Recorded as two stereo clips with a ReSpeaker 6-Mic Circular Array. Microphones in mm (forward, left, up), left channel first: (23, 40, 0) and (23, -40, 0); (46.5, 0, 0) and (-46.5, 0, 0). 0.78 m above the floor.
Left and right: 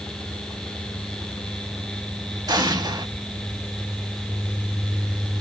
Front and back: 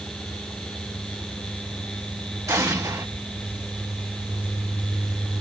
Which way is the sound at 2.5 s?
125° right.